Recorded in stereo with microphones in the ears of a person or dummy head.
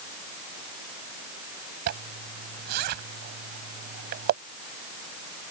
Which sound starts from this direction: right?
A zipper, at 1.9 s.